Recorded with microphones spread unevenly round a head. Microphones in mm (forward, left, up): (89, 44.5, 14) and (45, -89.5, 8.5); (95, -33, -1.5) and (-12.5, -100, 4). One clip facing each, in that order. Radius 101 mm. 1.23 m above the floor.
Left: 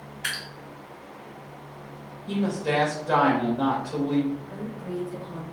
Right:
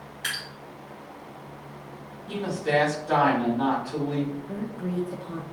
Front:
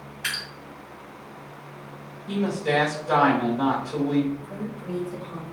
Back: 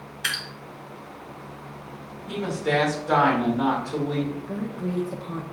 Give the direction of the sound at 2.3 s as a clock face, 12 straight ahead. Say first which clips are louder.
Left 1 dB, front 1 dB; 8 o'clock.